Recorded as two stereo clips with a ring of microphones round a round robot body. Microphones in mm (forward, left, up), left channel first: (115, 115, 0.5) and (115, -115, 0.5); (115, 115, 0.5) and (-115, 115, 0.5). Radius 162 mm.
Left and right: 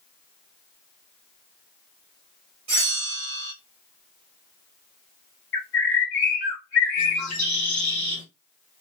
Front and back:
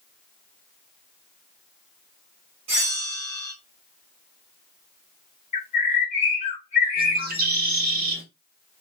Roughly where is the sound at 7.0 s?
Behind left.